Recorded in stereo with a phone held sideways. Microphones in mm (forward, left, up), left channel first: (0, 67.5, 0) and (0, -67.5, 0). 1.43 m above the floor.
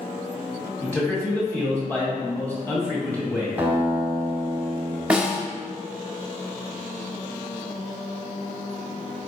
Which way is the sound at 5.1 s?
5° right (ahead or behind).